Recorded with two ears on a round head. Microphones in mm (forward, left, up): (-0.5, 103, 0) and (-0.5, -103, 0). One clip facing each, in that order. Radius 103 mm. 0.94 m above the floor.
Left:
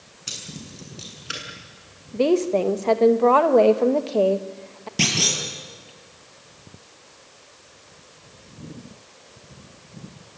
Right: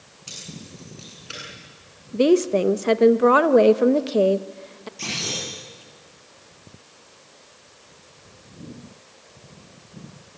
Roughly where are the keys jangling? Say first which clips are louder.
Left 1 dB; left.